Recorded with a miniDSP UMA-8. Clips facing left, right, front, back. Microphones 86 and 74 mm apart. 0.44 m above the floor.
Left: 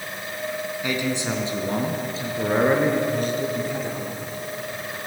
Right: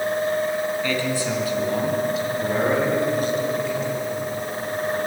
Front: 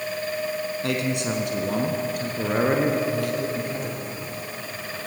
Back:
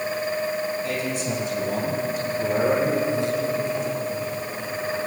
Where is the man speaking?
15° left, 4 m; by 4.2 s 45° left, 7 m.